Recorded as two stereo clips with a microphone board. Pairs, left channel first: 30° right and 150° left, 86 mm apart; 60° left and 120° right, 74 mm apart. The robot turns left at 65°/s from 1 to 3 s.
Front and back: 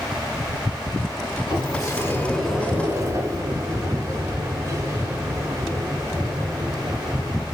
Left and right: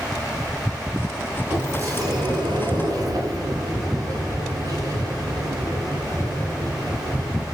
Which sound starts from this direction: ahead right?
A sliding door, at 1.5 s.